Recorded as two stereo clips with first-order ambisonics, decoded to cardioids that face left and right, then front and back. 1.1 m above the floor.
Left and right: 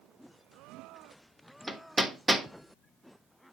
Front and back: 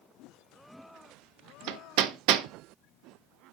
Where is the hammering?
170° right, 1.1 m.